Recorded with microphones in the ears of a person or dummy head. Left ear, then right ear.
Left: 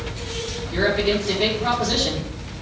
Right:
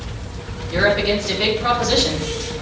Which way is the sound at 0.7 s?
25° right (ahead or behind).